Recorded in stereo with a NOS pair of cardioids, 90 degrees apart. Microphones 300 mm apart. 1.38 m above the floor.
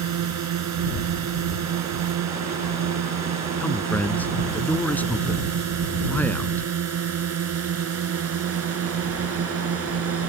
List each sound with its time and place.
0.0 s a drone: 70° right; by 10.3 s 50° right
3.6 s a man speaking: 5° left